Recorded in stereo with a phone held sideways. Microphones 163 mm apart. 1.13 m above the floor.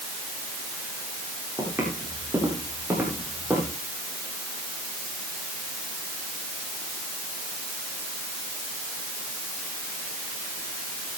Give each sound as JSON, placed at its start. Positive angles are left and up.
{"t": 1.6, "sound": "footsteps", "side_deg": -10, "distance_m": 8.5}